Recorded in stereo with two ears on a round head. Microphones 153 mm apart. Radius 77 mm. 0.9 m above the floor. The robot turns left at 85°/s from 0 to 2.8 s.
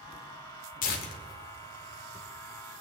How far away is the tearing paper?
About 1.5 m.